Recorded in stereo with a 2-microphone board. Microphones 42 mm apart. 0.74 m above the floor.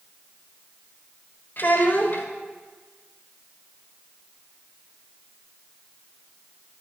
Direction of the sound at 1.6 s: 50° left (ahead or behind).